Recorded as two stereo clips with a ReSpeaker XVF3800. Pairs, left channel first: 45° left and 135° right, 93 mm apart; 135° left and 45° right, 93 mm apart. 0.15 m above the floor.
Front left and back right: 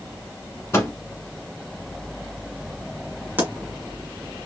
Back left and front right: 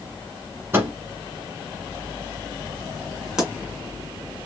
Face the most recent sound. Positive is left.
turn(degrees=-125)